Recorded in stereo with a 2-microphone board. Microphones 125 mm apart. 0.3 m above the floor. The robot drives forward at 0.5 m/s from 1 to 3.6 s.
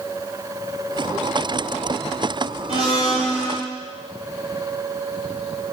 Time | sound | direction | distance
2.7 | a blender | 55° right (ahead or behind) | 3.5 m